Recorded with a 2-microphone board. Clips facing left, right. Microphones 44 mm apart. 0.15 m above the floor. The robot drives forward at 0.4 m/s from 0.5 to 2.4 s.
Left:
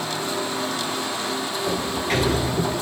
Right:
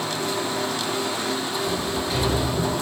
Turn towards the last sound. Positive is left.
turn(degrees=55)  # may be behind; listen again after turning